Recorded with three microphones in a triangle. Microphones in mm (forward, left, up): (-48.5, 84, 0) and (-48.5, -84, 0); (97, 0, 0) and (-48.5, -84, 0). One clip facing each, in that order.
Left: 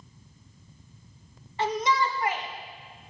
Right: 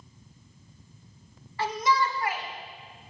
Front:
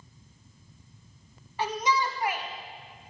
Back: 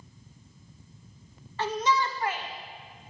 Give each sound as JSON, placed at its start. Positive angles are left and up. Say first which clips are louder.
{"t": 1.6, "sound": "a shout", "louder": "left 1 dB, back 1 dB", "azimuth_deg": 85, "distance_m": 1.2}